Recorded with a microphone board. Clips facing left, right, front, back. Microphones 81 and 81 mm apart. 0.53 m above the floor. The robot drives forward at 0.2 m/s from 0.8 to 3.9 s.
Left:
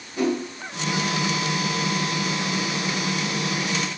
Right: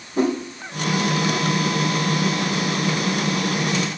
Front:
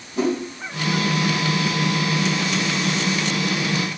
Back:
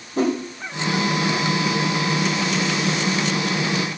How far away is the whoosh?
About 2.5 m.